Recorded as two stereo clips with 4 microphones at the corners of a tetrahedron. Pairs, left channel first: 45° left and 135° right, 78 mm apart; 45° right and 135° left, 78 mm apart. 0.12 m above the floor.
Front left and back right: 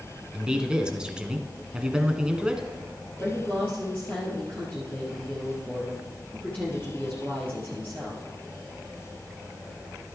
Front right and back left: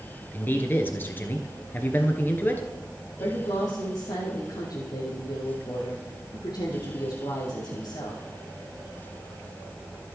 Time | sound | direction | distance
0.3 | a man speaking | 70° right | 1.3 m
3.2 | a woman speaking | 20° right | 3 m